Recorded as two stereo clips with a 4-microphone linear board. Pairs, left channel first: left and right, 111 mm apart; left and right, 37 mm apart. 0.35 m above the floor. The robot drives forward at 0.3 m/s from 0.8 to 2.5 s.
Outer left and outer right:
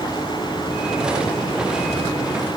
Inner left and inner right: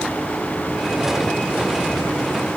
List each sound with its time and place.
Only background noise.